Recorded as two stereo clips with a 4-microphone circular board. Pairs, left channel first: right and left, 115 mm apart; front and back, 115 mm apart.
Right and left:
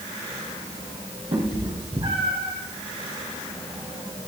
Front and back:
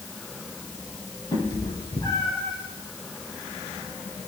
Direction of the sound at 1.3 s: 55° left.